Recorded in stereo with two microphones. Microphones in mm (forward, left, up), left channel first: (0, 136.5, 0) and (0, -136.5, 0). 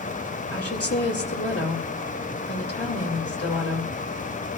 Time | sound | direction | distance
0.5 | a woman speaking | 55° left (ahead or behind) | 2.5 m